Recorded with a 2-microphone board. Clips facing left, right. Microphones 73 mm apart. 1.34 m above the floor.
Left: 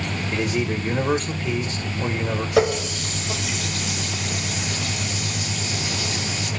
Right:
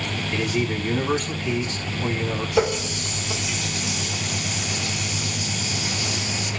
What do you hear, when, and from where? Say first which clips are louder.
0.3 s a man speaking: left 1 dB; 45° left (ahead or behind), 1.6 m
2.6 s a running tap: left 3 dB; 70° left (ahead or behind), 1.6 m